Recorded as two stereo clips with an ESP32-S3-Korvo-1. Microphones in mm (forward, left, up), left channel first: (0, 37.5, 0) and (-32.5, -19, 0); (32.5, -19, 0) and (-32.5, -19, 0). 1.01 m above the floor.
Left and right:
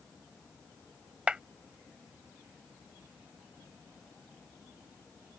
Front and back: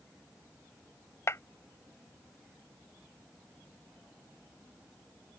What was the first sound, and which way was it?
A clap, 45° right.